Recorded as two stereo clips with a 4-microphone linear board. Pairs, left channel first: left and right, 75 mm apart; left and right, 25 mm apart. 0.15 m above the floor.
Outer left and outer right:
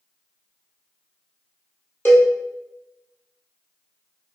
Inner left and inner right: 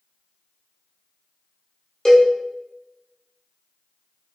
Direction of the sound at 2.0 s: 30° left (ahead or behind).